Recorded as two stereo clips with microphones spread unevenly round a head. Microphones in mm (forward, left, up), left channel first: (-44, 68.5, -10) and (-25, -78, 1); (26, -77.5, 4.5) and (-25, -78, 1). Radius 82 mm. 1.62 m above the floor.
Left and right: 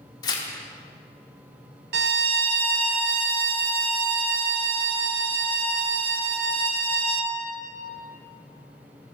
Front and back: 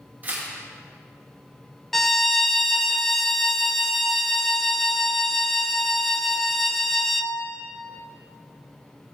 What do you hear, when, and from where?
0.2 s tearing paper: 145° left, 1.0 m
1.9 s a violin: 85° right, 0.6 m